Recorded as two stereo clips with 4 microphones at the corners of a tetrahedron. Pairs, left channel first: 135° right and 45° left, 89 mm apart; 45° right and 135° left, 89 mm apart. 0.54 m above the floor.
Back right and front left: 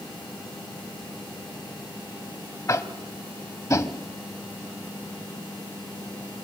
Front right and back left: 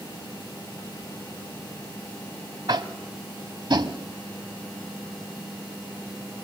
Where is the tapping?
170° left, 1.0 m.